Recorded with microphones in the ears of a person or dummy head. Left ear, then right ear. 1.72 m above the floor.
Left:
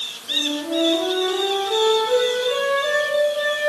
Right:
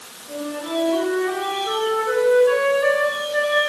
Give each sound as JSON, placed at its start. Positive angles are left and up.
{"t": 0.3, "sound": "a flute", "side_deg": -65, "distance_m": 10.0}